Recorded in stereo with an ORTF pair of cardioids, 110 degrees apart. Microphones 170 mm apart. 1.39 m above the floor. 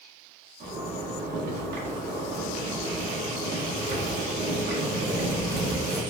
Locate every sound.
0.6 s a zipper: 70° right, 1.5 m